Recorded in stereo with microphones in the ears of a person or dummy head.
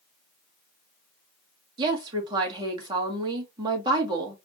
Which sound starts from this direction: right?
A woman speaking, at 1.8 s.